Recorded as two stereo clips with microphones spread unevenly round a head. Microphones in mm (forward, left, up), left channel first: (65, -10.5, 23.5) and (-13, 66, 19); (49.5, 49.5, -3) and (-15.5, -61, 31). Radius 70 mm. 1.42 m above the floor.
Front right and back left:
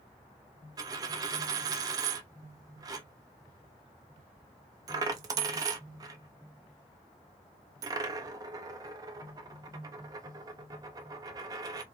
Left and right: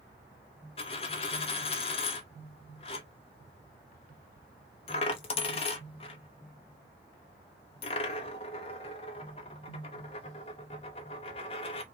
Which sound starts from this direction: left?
A dropped coin, at 0.8 s.